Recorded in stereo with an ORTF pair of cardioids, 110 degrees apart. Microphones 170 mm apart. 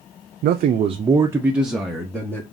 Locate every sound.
0.4 s a man speaking: 65° right, 0.5 m; by 2.4 s 10° left, 1.2 m